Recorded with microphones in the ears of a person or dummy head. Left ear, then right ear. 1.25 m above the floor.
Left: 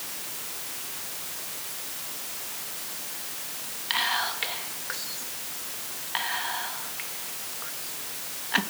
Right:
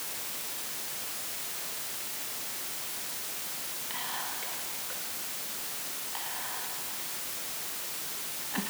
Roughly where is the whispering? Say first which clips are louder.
Left 12 dB; left.